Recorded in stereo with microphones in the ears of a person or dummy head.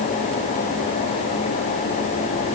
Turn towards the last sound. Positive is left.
No sound to turn to.